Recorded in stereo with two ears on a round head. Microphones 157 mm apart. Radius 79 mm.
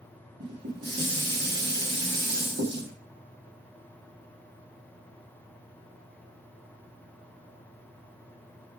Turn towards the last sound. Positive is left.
turn(degrees=-60)  # may be behind; listen again after turning